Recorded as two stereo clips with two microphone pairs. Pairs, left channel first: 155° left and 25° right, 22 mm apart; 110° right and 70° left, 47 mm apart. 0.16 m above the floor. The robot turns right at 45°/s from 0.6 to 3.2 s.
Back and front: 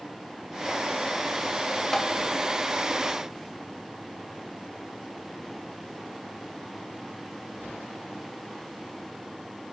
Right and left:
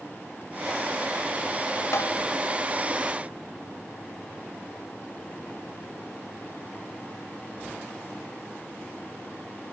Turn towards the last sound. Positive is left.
turn(degrees=-80)